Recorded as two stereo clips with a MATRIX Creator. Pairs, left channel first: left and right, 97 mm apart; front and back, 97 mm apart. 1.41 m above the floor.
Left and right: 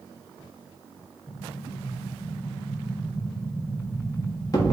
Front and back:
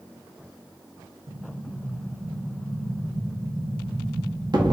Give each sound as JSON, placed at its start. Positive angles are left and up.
{"t": 1.3, "sound": "an explosion", "azimuth_deg": 140, "distance_m": 0.9}